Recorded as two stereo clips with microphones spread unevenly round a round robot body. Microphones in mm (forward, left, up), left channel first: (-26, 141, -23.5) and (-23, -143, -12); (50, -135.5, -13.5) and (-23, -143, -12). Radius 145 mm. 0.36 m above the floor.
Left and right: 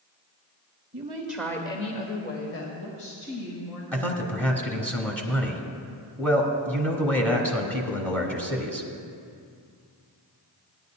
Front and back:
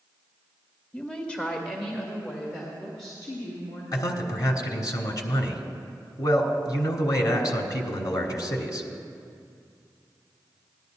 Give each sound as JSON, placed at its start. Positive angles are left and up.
{"t": 0.9, "sound": "a woman speaking", "azimuth_deg": -45, "distance_m": 1.2}
{"t": 3.9, "sound": "a man speaking", "azimuth_deg": 10, "distance_m": 1.3}